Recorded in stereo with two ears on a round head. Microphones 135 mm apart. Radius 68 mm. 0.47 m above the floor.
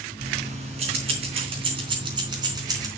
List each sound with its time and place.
0.2 s keys jangling: 45° right (ahead or behind), 3.5 m; by 2.9 s 25° right (ahead or behind), 3.5 m